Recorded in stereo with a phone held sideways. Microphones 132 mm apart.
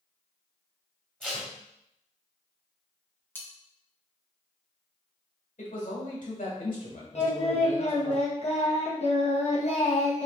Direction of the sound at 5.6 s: 80° left.